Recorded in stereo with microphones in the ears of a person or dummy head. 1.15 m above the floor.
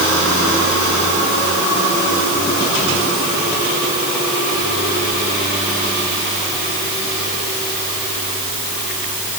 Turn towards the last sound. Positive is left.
No sound to turn to.